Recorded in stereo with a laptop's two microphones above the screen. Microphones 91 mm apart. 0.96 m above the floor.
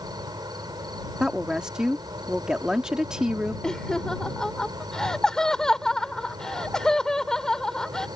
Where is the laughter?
10° left (ahead or behind).